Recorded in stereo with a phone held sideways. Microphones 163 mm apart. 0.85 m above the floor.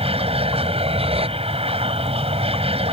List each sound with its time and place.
0.0 s an aircraft: 35° right (ahead or behind)